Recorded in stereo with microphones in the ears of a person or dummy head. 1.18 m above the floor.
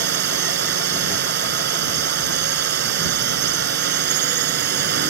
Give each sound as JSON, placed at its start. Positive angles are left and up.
{"t": 0.0, "sound": "a drone", "side_deg": -60}